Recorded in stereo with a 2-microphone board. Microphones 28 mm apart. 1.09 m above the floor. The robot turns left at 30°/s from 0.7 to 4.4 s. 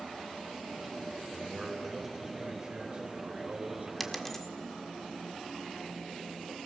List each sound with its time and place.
1.3 s a man speaking: 15° left, 4 m; by 3.9 s 65° right, 4 m
4.0 s a dropped coin: centre (ahead or behind), 1.4 m; by 4.5 s 10° left (ahead or behind), 1.4 m